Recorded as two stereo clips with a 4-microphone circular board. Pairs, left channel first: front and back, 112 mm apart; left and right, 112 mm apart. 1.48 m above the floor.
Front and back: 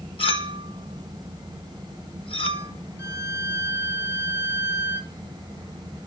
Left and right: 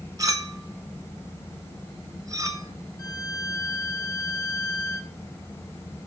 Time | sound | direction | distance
0.2 | a clink | 30° right | 1.3 m
3.0 | a violin | 125° left | 1.4 m